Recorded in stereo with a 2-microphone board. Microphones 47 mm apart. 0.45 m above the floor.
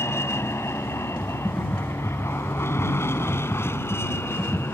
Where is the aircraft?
65° left (ahead or behind); by 4.7 s 60° left (ahead or behind).